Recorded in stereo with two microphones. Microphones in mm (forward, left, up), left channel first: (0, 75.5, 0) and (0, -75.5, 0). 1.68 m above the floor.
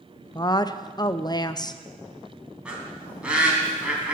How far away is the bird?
About 2.5 m.